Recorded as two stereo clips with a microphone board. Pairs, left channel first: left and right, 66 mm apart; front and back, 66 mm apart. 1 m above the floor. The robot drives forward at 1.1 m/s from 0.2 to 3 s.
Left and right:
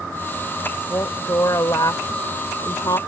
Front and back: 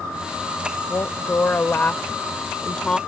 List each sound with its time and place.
0.9 s a woman speaking: 50° left; by 3.0 s 80° left